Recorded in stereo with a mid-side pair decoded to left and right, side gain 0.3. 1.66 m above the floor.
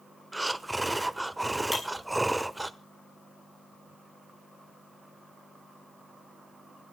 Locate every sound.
0.3 s breathing: 10° right, 1.1 m
1.7 s breaking glass: 25° left, 6 m